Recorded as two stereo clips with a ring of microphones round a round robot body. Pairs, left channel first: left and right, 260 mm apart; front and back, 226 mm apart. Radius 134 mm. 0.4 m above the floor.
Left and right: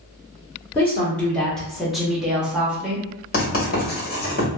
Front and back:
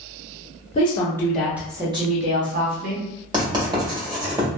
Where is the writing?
120° left, 1.7 m.